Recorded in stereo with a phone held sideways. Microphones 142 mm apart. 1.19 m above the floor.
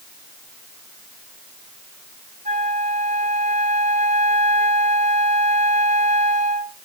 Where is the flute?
65° right (ahead or behind), 2.5 m.